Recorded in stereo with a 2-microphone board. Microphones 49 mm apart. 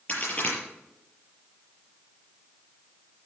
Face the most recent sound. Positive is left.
turn(degrees=30)  # may be behind; listen again after turning